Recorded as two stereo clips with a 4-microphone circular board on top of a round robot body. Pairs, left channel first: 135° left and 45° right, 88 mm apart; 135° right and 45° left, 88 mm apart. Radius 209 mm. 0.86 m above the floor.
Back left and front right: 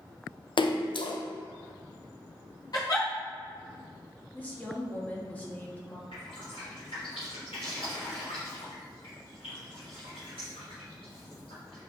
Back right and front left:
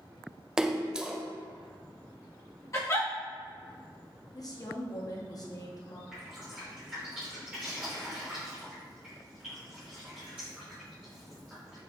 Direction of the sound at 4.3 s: 160° right.